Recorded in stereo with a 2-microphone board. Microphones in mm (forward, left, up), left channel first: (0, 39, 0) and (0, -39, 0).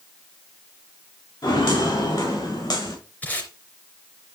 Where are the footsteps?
70° left (ahead or behind), 5.5 m; by 3.0 s 60° left (ahead or behind), 6 m.